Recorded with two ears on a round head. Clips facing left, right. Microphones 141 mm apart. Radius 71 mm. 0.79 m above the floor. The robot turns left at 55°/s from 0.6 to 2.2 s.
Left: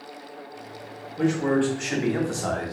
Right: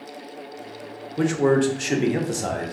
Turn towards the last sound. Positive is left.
turn(degrees=-155)